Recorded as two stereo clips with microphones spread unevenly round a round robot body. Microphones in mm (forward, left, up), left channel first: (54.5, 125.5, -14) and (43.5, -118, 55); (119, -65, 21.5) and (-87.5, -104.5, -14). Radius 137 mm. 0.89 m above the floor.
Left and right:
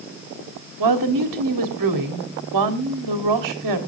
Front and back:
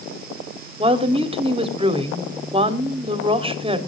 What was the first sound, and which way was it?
A woman speaking, 105° right.